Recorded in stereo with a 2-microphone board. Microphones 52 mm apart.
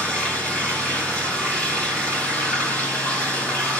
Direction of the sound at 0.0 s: 25° left (ahead or behind).